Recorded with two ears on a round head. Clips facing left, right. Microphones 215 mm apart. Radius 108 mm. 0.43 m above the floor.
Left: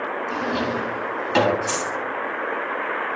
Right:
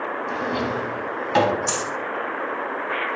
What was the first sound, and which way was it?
A drawer, 5° left (ahead or behind).